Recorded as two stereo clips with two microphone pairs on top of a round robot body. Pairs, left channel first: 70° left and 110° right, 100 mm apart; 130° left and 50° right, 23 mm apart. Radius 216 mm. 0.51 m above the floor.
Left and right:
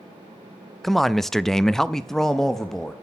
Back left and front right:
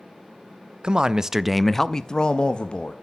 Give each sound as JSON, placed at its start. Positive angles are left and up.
{"t": 0.8, "sound": "a man speaking", "azimuth_deg": -15, "distance_m": 0.7}